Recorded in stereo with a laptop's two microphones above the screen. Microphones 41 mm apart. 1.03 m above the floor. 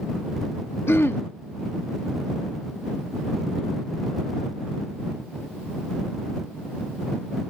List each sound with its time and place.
0.9 s throat clearing: 75° left (ahead or behind)